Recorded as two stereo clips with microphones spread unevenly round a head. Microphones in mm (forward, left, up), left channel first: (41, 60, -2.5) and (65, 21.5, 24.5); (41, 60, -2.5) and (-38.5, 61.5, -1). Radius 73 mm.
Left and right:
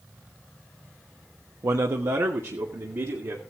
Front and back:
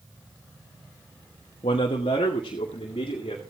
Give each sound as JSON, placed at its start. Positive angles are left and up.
{"t": 1.6, "sound": "a man speaking", "azimuth_deg": -25, "distance_m": 1.2}